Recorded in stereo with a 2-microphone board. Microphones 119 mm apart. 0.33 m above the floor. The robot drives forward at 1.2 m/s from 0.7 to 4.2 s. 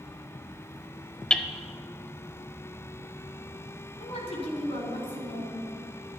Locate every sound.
1.3 s hammering: 10° left (ahead or behind), 0.7 m
4.0 s a woman speaking: 50° left (ahead or behind), 3.5 m